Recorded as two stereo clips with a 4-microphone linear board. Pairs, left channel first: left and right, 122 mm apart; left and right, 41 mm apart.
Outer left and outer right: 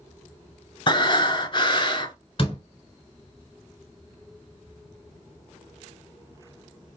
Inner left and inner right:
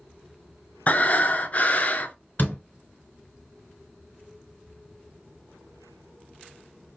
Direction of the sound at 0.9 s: 40° left (ahead or behind).